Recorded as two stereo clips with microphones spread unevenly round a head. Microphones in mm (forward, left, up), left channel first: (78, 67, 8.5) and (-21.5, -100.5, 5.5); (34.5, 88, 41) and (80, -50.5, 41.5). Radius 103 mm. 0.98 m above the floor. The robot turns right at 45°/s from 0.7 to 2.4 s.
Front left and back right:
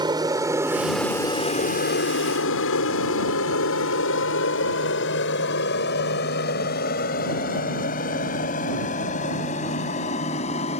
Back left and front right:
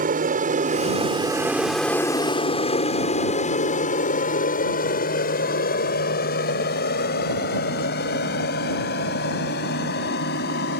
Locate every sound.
0.0 s an aircraft: 50° right; by 10.8 s 120° left